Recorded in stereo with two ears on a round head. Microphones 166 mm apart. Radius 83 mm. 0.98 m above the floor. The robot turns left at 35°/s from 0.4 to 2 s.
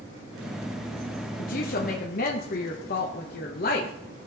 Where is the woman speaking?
45° left (ahead or behind), 1.0 m; by 3.9 s 50° left (ahead or behind), 1.0 m.